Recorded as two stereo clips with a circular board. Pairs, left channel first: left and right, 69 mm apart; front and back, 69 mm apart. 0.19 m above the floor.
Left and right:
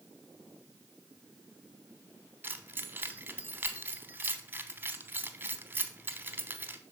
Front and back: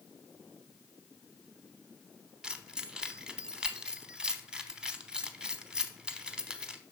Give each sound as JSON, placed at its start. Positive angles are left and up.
{"t": 2.4, "sound": "keys jangling", "azimuth_deg": -115, "distance_m": 0.8}